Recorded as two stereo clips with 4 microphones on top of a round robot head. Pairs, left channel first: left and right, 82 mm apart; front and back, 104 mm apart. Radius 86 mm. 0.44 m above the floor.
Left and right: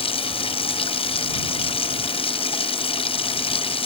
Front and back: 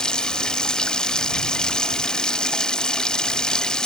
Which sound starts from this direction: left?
Running water, at 0.0 s.